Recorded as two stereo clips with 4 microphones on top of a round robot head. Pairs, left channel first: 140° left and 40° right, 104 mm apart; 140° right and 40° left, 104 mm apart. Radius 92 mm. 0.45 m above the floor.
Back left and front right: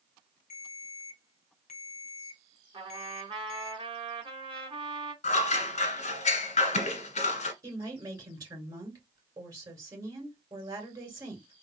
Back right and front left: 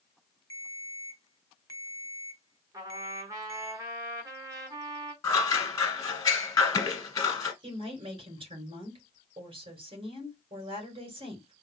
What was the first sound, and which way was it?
A ringtone, 160° left.